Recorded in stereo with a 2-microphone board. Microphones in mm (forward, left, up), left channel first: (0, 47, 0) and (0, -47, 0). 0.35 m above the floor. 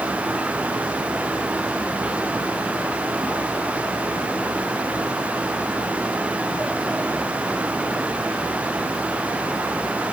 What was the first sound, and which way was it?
Only background noise.